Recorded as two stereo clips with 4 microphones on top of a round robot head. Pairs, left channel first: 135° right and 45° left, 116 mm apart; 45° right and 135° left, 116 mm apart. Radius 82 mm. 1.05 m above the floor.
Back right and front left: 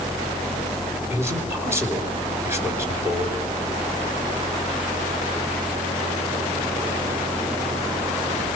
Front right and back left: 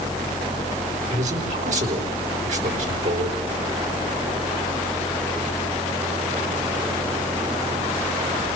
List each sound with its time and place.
1.1 s a man speaking: 115° left, 6 m